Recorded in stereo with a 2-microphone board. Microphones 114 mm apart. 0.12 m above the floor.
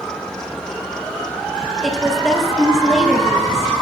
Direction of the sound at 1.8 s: Centre (ahead or behind).